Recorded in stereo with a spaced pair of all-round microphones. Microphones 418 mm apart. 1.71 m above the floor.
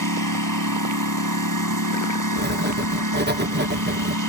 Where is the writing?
25° right (ahead or behind).